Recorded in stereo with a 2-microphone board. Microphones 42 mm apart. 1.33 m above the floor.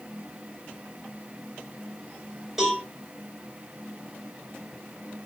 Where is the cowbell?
5° right (ahead or behind), 1.9 m.